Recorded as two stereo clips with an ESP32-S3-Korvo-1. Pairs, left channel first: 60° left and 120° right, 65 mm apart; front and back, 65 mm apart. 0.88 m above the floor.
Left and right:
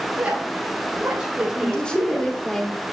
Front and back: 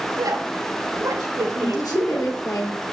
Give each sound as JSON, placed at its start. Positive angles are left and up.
{"t": 0.1, "sound": "a woman speaking", "azimuth_deg": 170, "distance_m": 5.5}
{"t": 1.6, "sound": "a woman speaking", "azimuth_deg": -15, "distance_m": 2.5}